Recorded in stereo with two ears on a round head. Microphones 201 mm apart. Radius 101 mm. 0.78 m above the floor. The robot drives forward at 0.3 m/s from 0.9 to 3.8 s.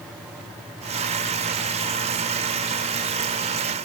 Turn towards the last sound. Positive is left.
No sound to turn to.